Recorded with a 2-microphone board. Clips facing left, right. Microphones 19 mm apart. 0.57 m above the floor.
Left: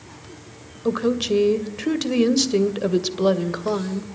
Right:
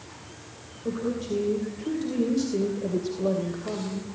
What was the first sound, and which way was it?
A woman speaking, 65° left (ahead or behind).